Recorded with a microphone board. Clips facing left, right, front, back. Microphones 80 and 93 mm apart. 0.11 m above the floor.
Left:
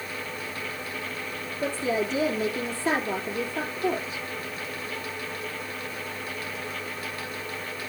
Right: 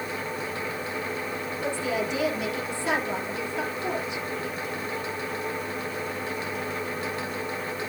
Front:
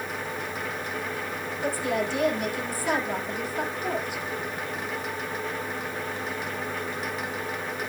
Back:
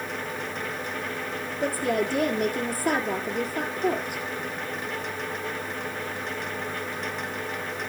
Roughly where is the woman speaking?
Behind left.